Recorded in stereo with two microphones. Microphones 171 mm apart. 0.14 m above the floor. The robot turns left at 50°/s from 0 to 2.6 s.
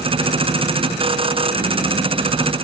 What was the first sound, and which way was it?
Only background noise.